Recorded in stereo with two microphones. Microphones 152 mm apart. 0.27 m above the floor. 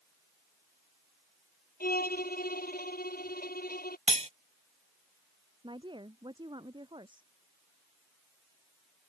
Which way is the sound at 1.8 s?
75° left (ahead or behind).